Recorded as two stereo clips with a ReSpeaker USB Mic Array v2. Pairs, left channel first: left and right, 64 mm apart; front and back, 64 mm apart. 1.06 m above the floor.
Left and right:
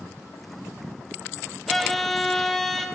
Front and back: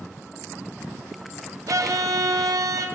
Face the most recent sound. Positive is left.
turn(degrees=180)